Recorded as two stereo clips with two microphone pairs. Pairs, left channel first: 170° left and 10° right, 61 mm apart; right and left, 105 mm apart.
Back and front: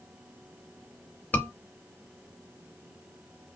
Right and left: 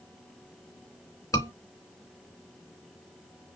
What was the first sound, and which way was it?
A scream, 140° right.